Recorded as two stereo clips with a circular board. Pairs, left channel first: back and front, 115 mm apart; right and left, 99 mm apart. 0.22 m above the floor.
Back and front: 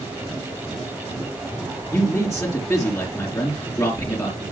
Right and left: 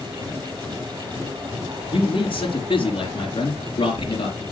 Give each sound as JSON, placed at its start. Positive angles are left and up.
{"t": 1.9, "sound": "a man speaking", "azimuth_deg": -120, "distance_m": 4.0}